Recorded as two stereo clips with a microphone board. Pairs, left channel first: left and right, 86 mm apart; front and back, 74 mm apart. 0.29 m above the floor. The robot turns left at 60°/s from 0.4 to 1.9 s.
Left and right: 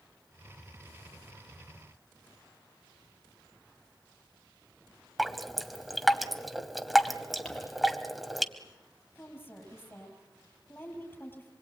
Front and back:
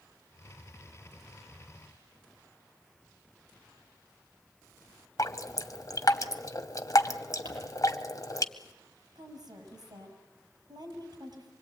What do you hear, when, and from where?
5.2 s dripping: straight ahead, 1.1 m
7.5 s crumpling: 175° left, 6.5 m
9.2 s a woman speaking: 155° left, 6.5 m